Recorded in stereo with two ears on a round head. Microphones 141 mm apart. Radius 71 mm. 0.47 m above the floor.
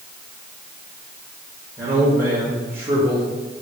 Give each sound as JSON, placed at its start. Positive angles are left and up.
{"t": 1.8, "sound": "a man speaking", "side_deg": -20, "distance_m": 3.5}